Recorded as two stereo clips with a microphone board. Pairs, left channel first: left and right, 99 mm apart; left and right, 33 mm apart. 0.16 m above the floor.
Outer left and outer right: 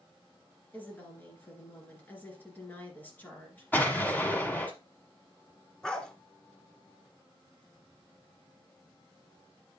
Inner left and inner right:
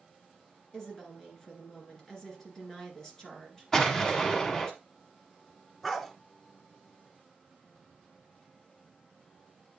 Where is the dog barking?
5° left (ahead or behind), 0.9 m.